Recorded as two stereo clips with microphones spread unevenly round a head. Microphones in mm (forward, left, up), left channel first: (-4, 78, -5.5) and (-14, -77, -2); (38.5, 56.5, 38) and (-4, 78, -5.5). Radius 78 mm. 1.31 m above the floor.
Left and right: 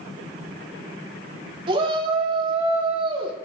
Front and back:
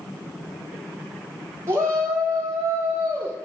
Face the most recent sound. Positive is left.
turn(degrees=-155)